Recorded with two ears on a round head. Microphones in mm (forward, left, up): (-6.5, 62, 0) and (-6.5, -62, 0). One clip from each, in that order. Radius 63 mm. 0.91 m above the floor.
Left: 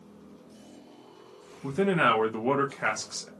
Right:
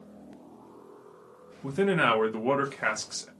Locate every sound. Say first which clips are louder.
1.6 s a man speaking: left 1 dB; 5° right (ahead or behind), 0.6 m